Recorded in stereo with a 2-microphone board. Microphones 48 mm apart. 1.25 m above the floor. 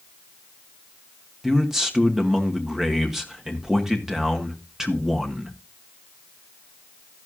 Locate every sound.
1.4 s a man speaking: 10° right (ahead or behind), 1.6 m